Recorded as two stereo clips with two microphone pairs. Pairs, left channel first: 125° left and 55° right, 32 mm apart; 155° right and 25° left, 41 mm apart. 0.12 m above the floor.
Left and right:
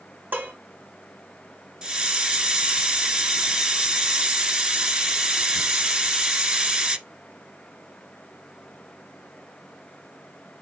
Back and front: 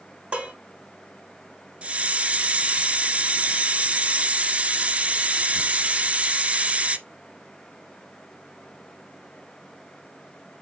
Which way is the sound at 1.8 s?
10° right.